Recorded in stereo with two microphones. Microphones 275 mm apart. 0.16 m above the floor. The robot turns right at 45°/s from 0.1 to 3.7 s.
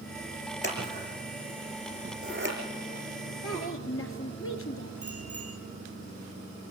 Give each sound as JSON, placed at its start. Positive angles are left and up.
{"t": 0.6, "sound": "scissors", "side_deg": 40, "distance_m": 6.0}
{"t": 3.4, "sound": "a woman speaking", "side_deg": 60, "distance_m": 2.5}
{"t": 5.0, "sound": "a bicycle bell", "side_deg": -55, "distance_m": 8.5}